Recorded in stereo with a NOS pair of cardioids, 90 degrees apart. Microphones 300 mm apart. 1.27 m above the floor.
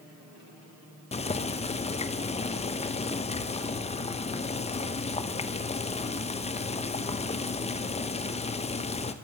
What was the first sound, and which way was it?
Boiling, 20° left.